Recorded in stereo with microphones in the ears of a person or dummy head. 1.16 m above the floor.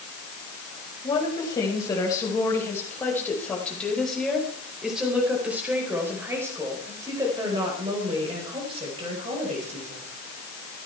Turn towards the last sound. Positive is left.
turn(degrees=-35)  # may be behind; listen again after turning